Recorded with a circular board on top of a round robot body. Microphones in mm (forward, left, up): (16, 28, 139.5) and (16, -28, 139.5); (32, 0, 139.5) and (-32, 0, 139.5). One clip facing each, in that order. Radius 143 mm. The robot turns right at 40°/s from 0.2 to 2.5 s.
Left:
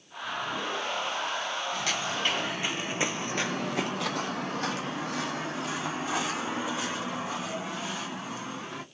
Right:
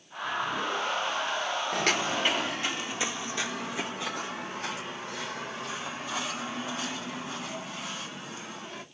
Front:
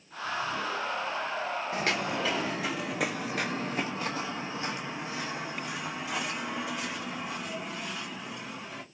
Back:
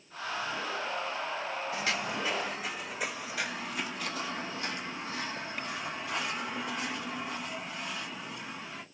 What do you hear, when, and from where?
1.7 s footsteps: 60° right, 0.8 m; by 8.8 s 85° left, 3.5 m